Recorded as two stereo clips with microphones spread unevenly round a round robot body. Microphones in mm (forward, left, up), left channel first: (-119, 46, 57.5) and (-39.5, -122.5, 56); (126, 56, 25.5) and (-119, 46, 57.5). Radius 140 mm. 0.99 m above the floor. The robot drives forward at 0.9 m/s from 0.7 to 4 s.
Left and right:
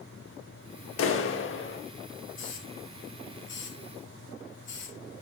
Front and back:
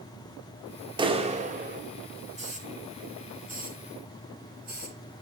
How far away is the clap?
About 1.8 m.